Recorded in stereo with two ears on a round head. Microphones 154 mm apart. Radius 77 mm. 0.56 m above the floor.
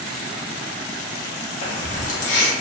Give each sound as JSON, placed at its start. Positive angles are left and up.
{"t": 1.6, "sound": "keys jangling", "side_deg": 45, "distance_m": 0.7}